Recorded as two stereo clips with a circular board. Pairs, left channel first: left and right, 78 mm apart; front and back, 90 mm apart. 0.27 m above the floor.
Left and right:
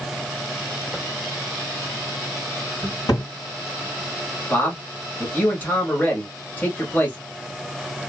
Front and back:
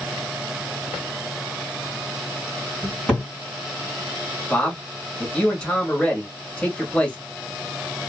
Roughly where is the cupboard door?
Left.